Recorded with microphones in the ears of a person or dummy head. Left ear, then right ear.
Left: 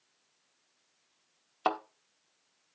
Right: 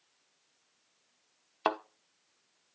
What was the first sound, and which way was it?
A thud, 15° right (ahead or behind).